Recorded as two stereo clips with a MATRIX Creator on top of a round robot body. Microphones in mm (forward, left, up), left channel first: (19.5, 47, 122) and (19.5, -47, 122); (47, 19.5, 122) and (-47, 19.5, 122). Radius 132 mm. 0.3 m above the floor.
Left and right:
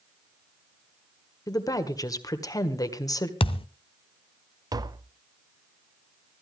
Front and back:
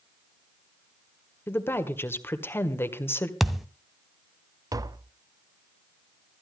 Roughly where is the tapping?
Behind right.